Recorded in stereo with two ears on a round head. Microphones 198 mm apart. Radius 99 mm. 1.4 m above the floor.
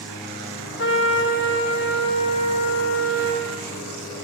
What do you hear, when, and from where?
0.8 s a trumpet: 55° left (ahead or behind), 2.5 m